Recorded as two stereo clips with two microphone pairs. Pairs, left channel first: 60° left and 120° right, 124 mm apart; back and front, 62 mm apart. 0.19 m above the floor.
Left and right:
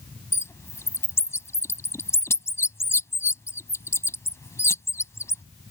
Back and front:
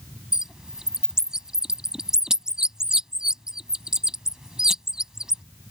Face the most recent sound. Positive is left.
turn(degrees=60)